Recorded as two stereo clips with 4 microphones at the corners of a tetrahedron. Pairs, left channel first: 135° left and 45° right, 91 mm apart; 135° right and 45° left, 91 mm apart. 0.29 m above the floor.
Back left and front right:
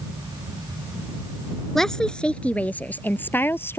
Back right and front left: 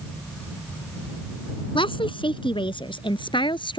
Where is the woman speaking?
140° right; by 3.8 s 160° right.